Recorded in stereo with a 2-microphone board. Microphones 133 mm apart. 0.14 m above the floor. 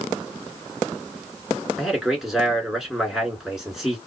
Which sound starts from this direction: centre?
A man speaking, at 1.8 s.